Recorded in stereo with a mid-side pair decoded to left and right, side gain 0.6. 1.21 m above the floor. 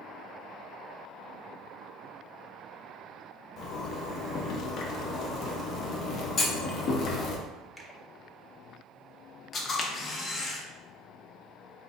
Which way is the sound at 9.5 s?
40° left.